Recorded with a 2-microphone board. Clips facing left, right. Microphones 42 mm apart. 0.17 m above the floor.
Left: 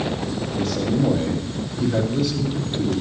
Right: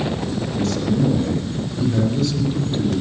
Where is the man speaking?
20° left (ahead or behind), 5.5 m.